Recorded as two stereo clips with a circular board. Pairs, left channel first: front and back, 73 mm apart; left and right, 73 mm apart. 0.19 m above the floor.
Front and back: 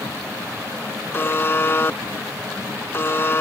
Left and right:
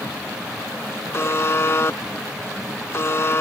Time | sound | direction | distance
1.1 | a buzzer | 45° left | ?